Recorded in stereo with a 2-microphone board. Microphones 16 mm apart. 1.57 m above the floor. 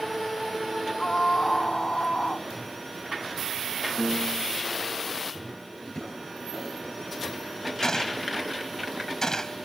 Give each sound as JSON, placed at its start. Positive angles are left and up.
{"t": 1.0, "sound": "a scream", "side_deg": 55}
{"t": 4.0, "sound": "a piano", "side_deg": -5}
{"t": 5.8, "sound": "a drawer", "side_deg": 40}
{"t": 7.8, "sound": "a gunshot", "side_deg": 40}